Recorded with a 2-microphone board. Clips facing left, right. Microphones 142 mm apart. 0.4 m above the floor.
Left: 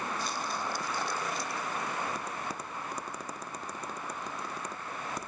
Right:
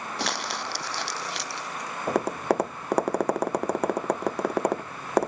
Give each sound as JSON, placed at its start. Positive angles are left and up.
{"t": 0.2, "sound": "crumpling", "side_deg": -80}
{"t": 2.1, "sound": "tapping", "side_deg": -70}